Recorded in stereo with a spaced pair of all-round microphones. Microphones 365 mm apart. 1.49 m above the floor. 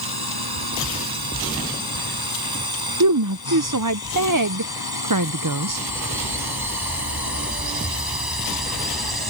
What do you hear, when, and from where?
0.0 s a drone: 85° right; by 9.3 s 80° right
3.0 s a woman speaking: 60° right (ahead or behind)